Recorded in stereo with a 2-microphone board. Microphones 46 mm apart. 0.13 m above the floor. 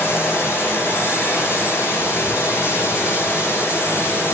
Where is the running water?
70° left (ahead or behind), 7.5 m.